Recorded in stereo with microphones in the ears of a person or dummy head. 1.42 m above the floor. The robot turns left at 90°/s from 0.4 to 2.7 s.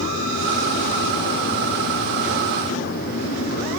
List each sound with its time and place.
Only background noise.